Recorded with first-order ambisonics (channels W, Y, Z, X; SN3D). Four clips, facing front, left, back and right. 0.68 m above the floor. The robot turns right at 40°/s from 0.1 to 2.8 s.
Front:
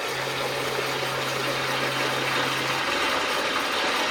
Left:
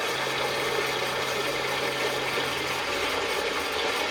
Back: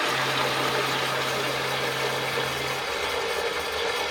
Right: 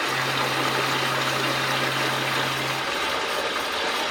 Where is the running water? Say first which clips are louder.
Right 3 dB, back 3 dB; 135° right, 3.5 m; by 4.1 s 25° right, 3.5 m.